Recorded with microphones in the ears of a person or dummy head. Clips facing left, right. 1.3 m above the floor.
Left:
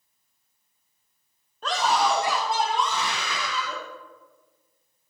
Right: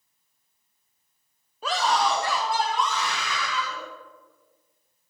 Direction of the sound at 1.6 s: 10° right (ahead or behind).